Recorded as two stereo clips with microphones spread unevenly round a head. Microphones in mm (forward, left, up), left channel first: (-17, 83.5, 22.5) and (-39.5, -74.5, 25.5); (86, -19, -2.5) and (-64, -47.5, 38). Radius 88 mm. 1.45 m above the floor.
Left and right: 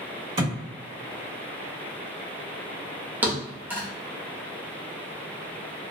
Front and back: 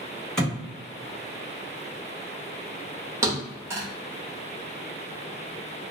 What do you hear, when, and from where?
0.4 s a thud: 90° right, 1.4 m
3.2 s a thud: 165° right, 0.8 m